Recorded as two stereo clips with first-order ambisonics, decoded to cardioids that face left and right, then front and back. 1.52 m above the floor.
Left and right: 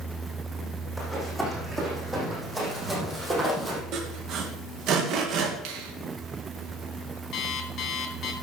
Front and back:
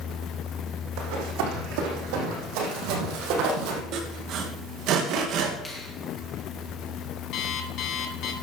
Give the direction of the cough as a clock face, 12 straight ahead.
No cough in this recording.